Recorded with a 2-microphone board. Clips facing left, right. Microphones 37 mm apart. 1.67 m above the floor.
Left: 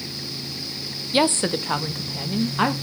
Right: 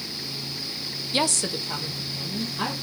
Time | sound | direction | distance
1.1 | a woman speaking | 15° left (ahead or behind) | 0.7 m